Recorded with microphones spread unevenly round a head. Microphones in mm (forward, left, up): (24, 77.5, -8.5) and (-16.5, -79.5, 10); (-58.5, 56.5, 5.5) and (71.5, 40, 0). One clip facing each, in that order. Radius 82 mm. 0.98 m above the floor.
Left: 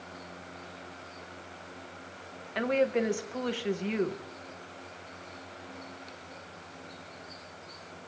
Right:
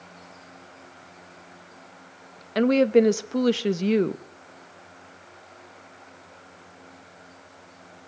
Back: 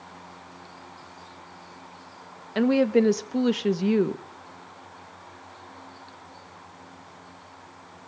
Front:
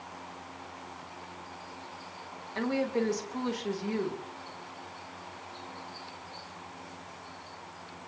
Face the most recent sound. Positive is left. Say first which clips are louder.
# right 9 dB, back 10 dB
turn(degrees=-145)